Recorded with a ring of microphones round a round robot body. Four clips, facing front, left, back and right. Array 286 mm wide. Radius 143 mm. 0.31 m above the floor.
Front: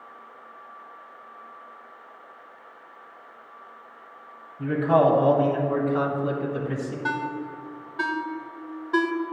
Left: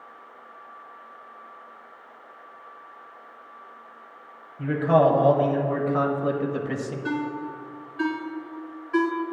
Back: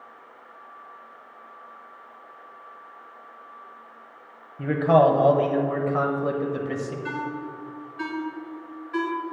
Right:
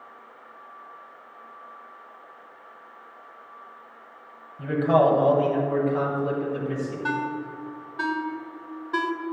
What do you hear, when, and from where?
4.6 s a man speaking: 165° right, 1.6 m; by 7.0 s 115° left, 1.4 m
7.0 s a ringtone: 30° right, 0.8 m